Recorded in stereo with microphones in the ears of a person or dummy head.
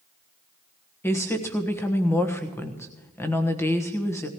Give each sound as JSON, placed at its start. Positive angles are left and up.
{"t": 1.0, "sound": "a woman speaking", "side_deg": 10, "distance_m": 1.3}